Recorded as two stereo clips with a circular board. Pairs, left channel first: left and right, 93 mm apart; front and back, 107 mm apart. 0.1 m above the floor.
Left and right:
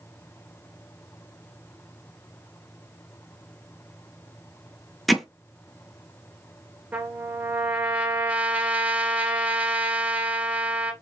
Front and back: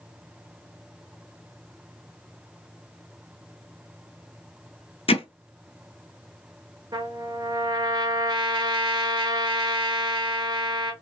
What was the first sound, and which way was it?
Hammering, straight ahead.